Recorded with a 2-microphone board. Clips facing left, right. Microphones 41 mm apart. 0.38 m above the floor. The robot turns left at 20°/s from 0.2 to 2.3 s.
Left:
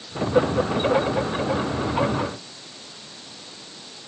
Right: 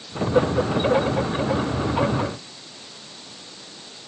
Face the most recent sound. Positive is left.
No sound to turn to.